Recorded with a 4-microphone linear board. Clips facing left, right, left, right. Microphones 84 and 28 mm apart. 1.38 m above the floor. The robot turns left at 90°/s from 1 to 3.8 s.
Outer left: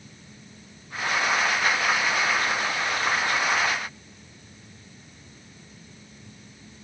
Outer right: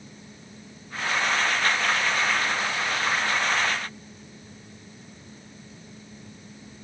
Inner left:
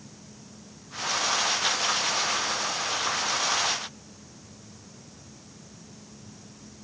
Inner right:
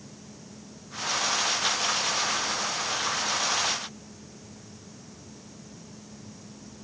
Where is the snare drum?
No snare drum in this recording.